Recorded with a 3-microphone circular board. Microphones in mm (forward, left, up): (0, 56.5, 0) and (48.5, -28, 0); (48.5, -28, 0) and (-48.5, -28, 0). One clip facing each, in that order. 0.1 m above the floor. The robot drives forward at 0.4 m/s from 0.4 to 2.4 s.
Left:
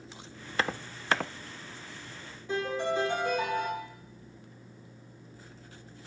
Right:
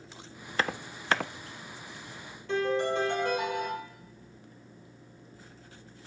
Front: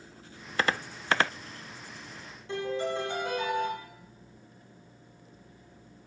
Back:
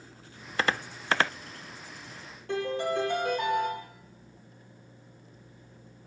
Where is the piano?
165° right, 2 m.